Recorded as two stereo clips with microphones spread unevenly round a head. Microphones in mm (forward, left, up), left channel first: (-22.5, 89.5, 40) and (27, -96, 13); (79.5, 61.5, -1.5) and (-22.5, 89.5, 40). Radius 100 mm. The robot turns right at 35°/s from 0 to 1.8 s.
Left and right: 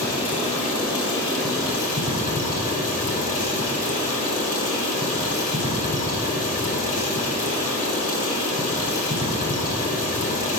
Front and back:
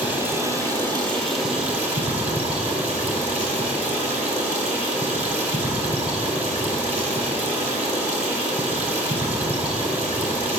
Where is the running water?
90° left, 4 m; by 10.6 s 155° left, 4 m.